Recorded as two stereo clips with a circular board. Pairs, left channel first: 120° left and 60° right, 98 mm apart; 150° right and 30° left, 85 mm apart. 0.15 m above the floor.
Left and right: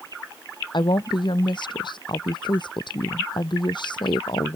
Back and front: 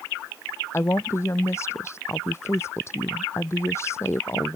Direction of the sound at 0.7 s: 155° left.